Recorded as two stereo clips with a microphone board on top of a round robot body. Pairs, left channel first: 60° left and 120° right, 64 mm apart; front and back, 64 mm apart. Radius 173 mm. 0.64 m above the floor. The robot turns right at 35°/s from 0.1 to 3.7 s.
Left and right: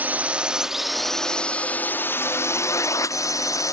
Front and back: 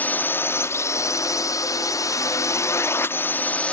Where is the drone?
60° right; by 3.7 s 70° left.